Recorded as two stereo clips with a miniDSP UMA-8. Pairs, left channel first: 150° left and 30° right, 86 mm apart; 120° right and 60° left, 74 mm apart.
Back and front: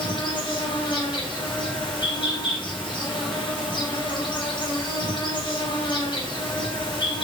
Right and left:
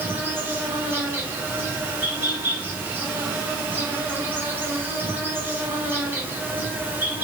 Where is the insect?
125° left, 1.0 m.